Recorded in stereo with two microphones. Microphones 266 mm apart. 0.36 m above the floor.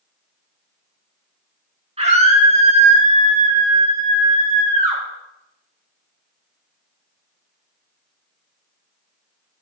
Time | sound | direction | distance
2.0 | a scream | 25° right (ahead or behind) | 3.5 m